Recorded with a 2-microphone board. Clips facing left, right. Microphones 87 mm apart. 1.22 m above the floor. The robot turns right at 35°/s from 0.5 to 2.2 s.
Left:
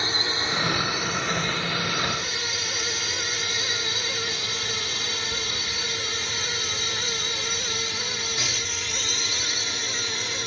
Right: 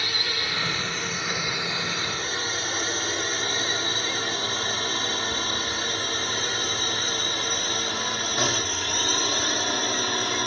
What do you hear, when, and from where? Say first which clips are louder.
0.0 s a drone: left 3 dB; 25° left (ahead or behind); by 10.5 s 45° right (ahead or behind)